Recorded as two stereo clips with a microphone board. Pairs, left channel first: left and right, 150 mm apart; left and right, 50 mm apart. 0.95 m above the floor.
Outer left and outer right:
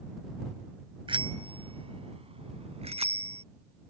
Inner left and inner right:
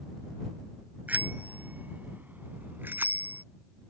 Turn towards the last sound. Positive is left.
turn(degrees=-45)  # may be behind; listen again after turning